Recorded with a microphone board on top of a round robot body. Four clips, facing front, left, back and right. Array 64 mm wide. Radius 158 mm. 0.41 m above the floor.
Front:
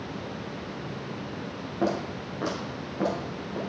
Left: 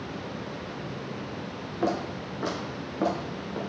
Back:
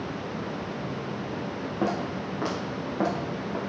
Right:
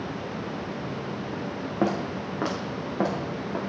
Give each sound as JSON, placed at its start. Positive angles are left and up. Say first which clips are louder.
{"t": 1.8, "sound": "footsteps", "louder": "right 2 dB, front 1 dB", "azimuth_deg": -95, "distance_m": 5.0}